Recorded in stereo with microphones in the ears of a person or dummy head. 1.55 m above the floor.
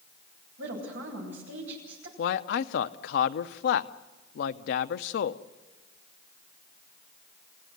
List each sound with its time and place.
0.6 s a woman speaking: 70° right (ahead or behind), 10 m
2.2 s a man speaking: 65° left (ahead or behind), 0.8 m